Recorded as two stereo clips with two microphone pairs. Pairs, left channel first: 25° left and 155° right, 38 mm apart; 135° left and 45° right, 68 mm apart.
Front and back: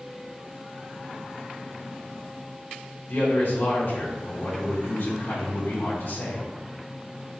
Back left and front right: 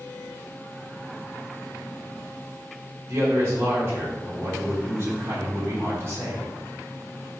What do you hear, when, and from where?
3.1 s a man speaking: 10° left, 1.8 m